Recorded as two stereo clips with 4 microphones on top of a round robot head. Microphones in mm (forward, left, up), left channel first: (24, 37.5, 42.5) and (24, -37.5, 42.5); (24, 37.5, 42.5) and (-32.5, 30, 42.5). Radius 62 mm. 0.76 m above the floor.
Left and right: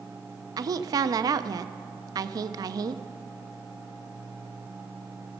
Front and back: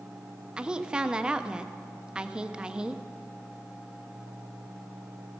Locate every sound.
0.6 s a woman speaking: 100° right, 0.6 m